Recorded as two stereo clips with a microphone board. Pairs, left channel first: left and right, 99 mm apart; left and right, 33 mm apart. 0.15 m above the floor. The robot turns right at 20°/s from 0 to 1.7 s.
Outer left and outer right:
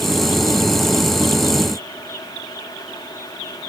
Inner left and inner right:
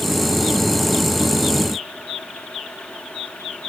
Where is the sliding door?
I don't hear a sliding door.